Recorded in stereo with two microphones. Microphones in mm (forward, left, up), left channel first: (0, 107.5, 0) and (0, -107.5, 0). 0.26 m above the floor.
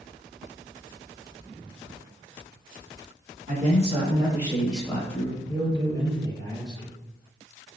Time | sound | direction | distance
3.5 | a man speaking | 35° right (ahead or behind) | 1.2 m
5.5 | a man speaking | 15° left (ahead or behind) | 1.3 m